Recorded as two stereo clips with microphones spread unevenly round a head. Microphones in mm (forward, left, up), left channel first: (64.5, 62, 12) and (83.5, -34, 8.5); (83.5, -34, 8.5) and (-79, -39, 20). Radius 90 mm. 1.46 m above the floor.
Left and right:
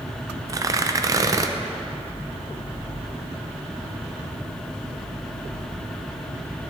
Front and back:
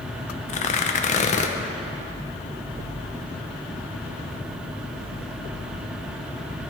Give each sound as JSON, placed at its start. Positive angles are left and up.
{"t": 0.5, "sound": "tearing paper", "azimuth_deg": -35, "distance_m": 0.5}